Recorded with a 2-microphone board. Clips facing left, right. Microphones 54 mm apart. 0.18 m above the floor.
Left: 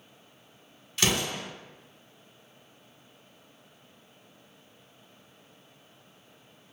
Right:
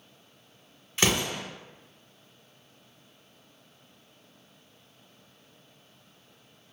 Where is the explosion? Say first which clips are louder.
Right 1 dB; 25° right (ahead or behind), 1.3 m.